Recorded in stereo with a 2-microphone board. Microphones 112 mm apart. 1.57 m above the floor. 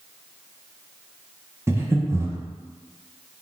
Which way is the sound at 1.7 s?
25° right (ahead or behind).